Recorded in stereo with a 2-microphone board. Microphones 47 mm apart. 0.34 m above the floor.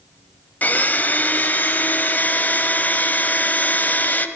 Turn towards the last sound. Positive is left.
turn(degrees=40)  # may be behind; listen again after turning